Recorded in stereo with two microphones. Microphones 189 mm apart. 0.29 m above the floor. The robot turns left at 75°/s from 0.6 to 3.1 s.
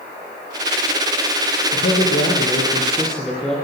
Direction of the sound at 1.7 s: 105° left.